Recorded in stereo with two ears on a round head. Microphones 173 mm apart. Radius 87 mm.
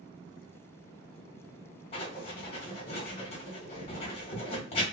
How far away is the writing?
About 1.2 m.